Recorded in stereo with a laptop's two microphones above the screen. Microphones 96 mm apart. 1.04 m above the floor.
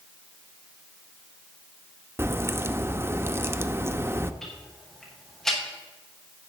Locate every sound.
2.2 s a crack: 25° right (ahead or behind), 0.8 m
4.4 s ticking: 5° left (ahead or behind), 5.5 m